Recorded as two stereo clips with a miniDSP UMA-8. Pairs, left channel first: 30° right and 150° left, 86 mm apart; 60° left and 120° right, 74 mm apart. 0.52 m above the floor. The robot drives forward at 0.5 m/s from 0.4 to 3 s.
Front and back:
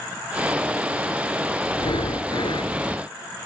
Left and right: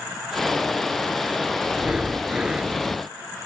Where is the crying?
No crying in this recording.